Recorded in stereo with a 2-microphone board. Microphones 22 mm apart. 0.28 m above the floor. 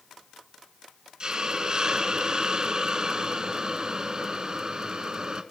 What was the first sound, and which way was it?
A hiss, 35° right (ahead or behind).